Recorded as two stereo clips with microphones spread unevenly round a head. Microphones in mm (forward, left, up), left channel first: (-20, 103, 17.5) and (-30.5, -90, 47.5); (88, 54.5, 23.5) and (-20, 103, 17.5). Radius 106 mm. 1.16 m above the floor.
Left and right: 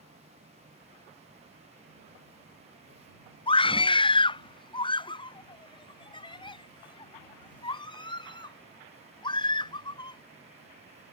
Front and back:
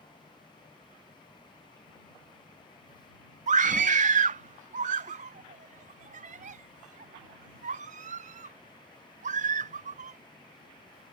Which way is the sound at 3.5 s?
150° left.